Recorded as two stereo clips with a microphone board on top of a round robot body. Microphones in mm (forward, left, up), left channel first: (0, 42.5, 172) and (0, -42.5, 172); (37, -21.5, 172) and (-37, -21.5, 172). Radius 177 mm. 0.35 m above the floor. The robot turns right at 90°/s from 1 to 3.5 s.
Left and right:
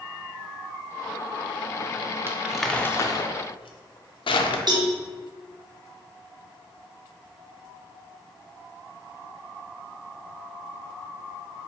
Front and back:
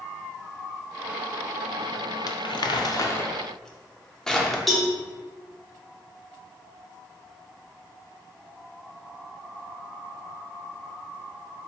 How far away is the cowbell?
About 1.0 m.